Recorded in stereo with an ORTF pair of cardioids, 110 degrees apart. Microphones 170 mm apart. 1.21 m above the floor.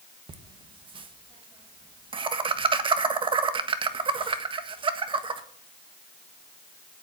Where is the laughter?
30° right, 1.4 m.